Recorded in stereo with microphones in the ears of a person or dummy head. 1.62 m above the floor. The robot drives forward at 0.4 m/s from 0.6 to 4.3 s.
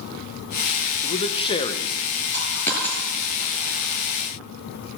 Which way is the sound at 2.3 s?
15° left (ahead or behind).